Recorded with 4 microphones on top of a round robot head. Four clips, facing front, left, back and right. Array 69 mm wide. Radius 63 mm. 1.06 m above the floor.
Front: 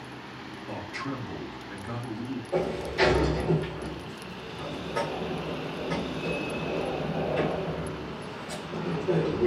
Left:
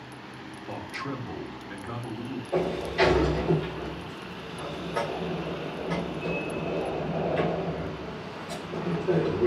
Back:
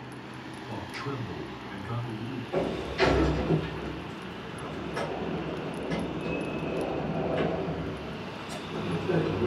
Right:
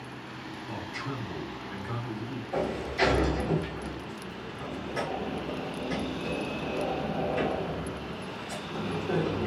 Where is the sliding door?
55° left, 2.5 m.